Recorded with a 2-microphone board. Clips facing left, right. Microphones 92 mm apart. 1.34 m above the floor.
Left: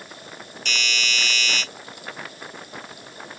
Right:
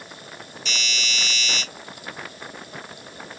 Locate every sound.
0.7 s a doorbell: 60° left (ahead or behind), 1.7 m